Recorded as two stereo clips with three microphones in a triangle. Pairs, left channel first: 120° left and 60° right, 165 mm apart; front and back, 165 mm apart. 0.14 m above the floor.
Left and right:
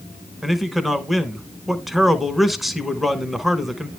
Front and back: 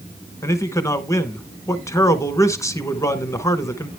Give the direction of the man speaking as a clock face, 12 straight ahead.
11 o'clock.